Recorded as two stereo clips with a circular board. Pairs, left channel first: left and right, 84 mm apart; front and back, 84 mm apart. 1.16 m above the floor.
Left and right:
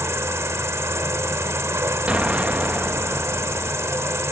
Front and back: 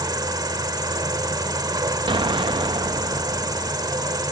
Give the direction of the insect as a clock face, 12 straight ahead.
5 o'clock.